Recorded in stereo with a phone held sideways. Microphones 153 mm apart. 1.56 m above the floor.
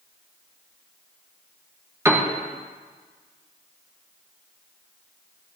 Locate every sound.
2.0 s a piano: 20° right (ahead or behind), 1.9 m